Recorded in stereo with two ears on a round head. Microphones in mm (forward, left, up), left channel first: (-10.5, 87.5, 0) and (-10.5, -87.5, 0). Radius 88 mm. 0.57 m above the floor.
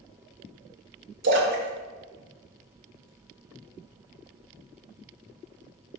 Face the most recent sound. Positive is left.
turn(degrees=-65)  # may be behind; listen again after turning